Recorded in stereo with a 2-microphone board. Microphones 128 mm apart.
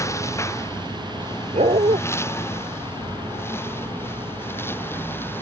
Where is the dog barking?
65° right (ahead or behind).